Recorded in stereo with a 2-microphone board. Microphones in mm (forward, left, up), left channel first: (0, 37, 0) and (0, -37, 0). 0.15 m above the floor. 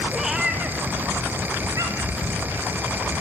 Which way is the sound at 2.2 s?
50° right (ahead or behind).